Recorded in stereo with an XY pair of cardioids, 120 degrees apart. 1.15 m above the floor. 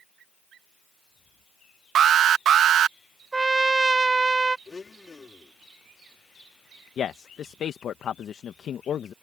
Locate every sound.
1.9 s an alarm: 50° right
3.3 s a trumpet: 15° right
4.7 s a blender: 25° left
7.0 s a man speaking: 50° left